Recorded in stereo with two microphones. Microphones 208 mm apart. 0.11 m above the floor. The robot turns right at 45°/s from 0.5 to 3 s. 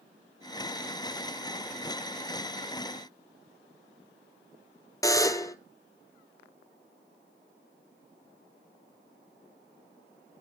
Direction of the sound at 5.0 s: 15° left (ahead or behind).